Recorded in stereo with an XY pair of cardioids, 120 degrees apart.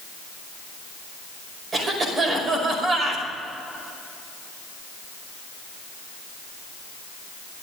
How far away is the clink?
No clink in this recording.